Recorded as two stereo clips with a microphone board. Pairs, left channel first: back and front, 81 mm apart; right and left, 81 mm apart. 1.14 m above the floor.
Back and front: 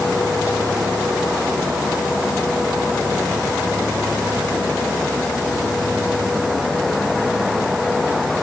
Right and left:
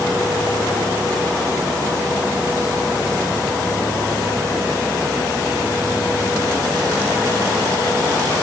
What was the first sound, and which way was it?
Only background noise.